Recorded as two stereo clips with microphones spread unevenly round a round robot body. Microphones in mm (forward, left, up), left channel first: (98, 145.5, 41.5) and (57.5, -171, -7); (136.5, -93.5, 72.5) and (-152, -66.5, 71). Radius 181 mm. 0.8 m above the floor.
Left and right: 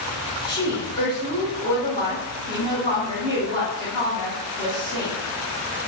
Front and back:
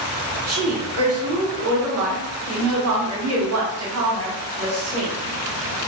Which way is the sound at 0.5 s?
165° left.